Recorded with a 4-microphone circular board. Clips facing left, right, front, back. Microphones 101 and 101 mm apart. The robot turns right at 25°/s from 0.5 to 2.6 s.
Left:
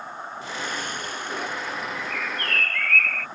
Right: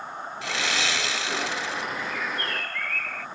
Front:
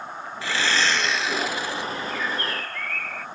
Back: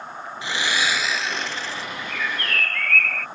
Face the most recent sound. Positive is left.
turn(degrees=75)